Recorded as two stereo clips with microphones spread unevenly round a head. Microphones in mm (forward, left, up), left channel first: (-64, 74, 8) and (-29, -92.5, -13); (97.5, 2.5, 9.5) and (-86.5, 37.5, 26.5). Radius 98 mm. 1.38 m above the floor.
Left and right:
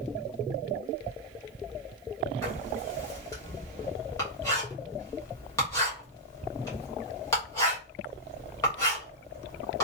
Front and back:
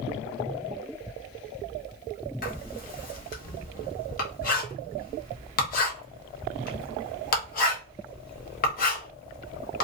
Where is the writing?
30° left, 1.0 m.